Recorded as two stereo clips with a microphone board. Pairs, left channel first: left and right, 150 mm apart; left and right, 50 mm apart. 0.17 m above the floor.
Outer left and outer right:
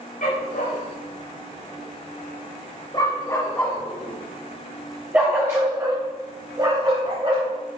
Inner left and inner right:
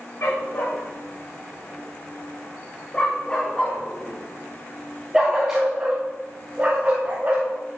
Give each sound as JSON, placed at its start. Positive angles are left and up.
{"t": 0.2, "sound": "a dog barking", "side_deg": 60, "distance_m": 4.5}